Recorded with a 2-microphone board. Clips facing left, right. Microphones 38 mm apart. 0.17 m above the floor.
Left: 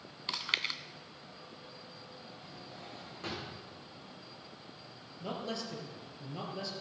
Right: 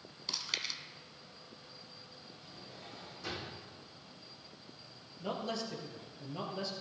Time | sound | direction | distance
0.3 | chewing | 35° left (ahead or behind) | 0.6 m
2.4 | a drawer | 45° left (ahead or behind) | 5.5 m
5.2 | a man speaking | centre (ahead or behind) | 3 m